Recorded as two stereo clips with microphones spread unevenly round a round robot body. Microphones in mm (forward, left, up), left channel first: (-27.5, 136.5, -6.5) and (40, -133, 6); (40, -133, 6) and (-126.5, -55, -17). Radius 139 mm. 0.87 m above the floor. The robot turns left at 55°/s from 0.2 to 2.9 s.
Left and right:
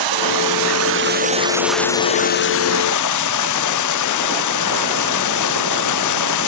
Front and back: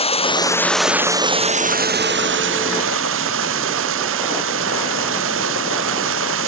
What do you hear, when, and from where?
0.0 s running water: 80° right; by 6.5 s 130° left